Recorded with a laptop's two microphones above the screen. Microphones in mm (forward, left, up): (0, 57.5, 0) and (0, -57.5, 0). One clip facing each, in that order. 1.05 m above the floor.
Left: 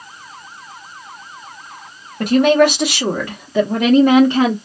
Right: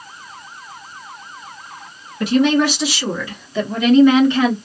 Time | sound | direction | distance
2.2 | a woman speaking | 50° left (ahead or behind) | 1.0 m